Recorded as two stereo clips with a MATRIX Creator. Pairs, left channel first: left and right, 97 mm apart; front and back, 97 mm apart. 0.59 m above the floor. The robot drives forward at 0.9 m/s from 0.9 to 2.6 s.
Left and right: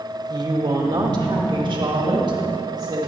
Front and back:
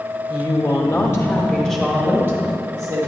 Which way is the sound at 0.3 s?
50° right.